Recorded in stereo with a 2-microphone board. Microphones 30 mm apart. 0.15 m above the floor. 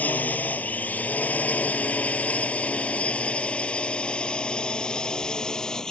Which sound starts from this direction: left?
A drone, at 0.0 s.